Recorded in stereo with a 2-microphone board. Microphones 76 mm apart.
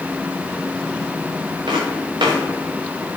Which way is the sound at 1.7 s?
90° right.